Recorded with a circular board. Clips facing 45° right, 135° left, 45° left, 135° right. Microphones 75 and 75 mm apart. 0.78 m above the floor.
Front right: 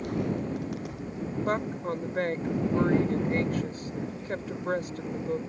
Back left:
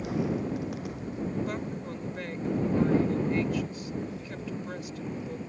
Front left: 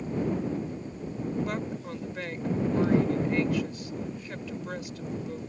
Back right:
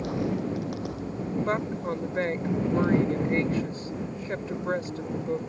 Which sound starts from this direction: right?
A woman speaking, at 1.4 s.